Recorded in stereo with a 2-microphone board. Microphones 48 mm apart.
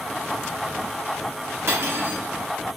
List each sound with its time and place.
1.7 s cutlery clinking: 65° right (ahead or behind), 3 m